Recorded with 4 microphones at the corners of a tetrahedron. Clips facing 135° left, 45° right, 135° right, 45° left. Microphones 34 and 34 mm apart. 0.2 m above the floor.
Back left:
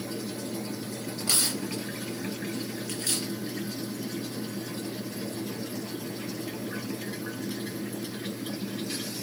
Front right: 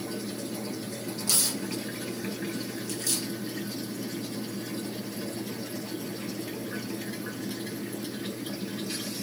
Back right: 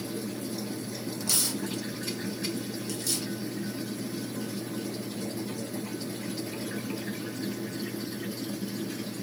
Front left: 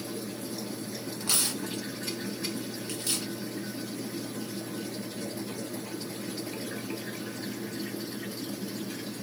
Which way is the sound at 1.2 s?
90° left.